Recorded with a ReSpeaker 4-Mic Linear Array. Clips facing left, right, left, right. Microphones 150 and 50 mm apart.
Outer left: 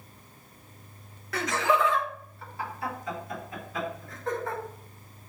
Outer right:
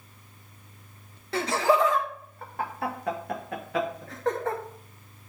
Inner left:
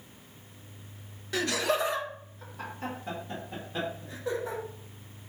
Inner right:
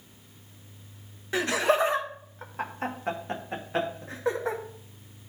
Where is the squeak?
No squeak in this recording.